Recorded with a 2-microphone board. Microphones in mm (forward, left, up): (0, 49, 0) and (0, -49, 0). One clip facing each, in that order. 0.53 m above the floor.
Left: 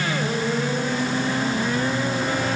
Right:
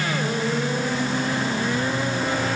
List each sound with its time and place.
Only background noise.